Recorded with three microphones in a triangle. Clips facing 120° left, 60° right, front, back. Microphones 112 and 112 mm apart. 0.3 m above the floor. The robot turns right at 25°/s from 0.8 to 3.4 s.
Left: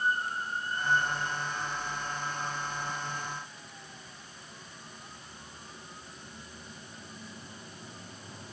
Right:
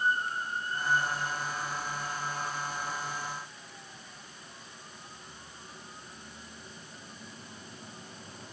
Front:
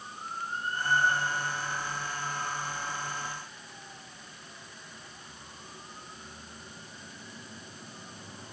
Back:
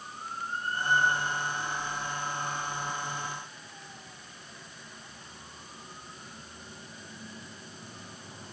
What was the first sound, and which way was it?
Only background noise.